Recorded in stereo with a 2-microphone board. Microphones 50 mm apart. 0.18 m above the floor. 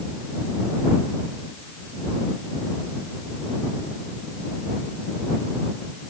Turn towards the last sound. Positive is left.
No sound to turn to.